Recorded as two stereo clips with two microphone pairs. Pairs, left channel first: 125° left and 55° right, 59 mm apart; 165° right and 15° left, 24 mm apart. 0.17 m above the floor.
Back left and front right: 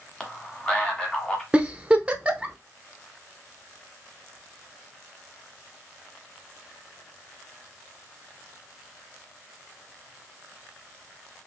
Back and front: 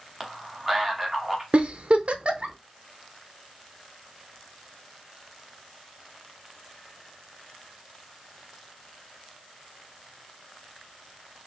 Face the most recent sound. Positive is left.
turn(degrees=10)